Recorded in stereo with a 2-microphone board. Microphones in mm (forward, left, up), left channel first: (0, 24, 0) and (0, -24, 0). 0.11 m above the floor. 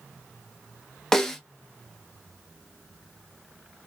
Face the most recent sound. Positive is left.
turn(degrees=10)  # may be behind; listen again after turning